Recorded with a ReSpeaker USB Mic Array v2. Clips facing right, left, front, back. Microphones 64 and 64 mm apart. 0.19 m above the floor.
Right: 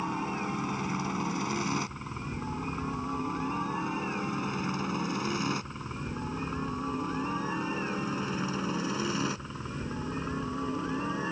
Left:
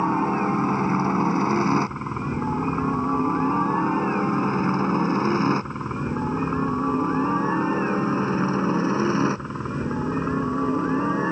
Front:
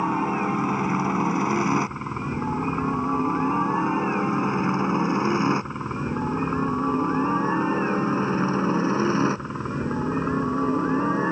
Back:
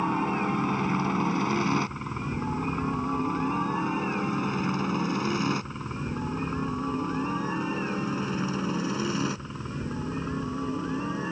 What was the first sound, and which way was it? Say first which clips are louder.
A helicopter: left 11 dB, front 3 dB; 70° left.